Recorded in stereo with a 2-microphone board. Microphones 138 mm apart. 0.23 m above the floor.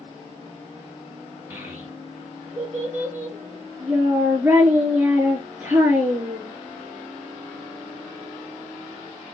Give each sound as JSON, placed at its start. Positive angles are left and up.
{"t": 1.5, "sound": "a child speaking", "side_deg": -15, "distance_m": 2.5}